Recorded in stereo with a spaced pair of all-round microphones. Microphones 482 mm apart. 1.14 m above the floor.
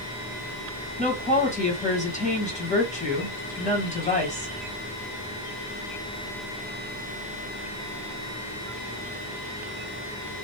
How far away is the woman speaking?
About 1.4 m.